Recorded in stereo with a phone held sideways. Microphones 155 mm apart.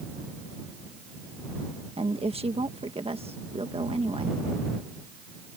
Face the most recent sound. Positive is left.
turn(degrees=-40)  # may be behind; listen again after turning